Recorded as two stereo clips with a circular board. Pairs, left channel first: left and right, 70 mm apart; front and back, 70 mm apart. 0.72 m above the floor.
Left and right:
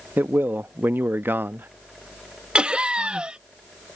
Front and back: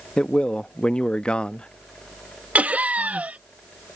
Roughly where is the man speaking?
Ahead right.